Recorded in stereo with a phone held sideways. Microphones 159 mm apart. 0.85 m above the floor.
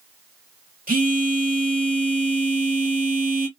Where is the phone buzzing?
60° right (ahead or behind), 1.6 m.